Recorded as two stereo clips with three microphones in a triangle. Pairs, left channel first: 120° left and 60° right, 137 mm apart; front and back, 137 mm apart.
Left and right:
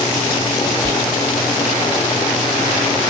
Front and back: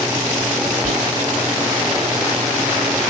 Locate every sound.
0.8 s whispering: 170° right, 1.4 m